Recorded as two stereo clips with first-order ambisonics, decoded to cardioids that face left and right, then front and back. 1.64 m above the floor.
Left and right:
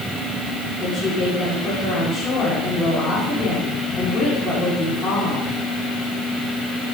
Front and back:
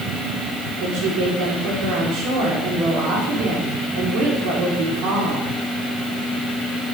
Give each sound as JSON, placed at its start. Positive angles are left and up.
{"t": 0.8, "sound": "a woman speaking", "azimuth_deg": 165, "distance_m": 5.5}